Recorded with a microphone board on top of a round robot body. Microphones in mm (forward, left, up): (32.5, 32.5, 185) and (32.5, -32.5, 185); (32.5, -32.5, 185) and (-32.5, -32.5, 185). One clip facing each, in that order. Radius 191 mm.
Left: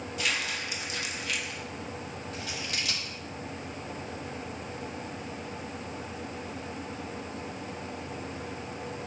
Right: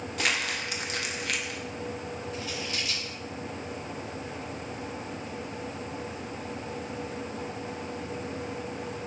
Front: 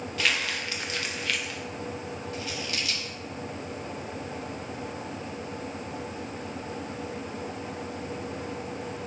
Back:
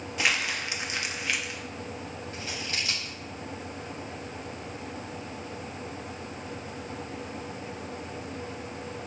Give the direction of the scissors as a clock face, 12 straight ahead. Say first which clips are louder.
Left 1 dB, even; 8 o'clock.